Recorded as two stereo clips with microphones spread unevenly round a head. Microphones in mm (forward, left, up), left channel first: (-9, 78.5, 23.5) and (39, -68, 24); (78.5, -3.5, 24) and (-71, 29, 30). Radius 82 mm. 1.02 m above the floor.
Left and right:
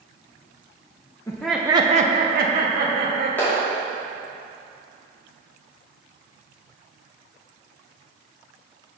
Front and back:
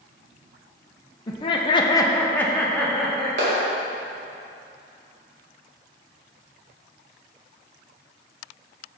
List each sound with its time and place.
1.3 s laughter: 40° left, 0.8 m; by 3.3 s 100° right, 2 m
3.4 s a clap: 175° right, 2 m